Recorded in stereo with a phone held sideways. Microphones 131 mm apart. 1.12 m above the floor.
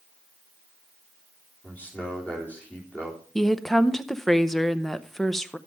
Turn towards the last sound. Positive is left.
turn(degrees=0)  # may be behind; listen again after turning